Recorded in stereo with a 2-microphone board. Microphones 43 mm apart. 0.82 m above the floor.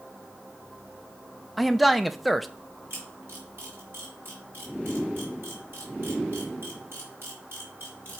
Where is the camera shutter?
55° right (ahead or behind), 3.5 m.